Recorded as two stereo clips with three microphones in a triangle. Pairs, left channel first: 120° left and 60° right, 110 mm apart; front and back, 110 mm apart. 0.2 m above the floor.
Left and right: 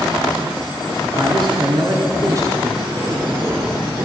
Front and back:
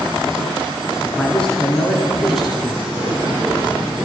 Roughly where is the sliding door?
Right.